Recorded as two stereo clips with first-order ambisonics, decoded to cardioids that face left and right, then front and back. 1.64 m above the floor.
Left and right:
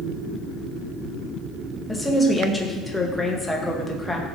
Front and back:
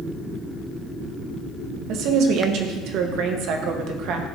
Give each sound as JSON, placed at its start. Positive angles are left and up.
{"t": 1.9, "sound": "a woman speaking", "azimuth_deg": 175, "distance_m": 0.8}